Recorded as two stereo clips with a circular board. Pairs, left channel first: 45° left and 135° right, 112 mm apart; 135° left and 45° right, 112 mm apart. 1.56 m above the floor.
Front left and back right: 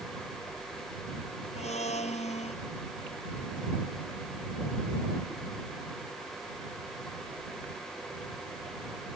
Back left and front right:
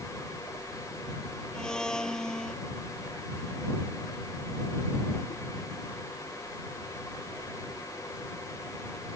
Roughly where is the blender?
Ahead left.